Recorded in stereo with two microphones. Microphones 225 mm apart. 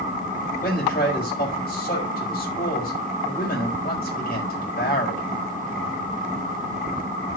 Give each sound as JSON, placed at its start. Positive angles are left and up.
{"t": 0.6, "sound": "a man speaking", "side_deg": 40, "distance_m": 6.0}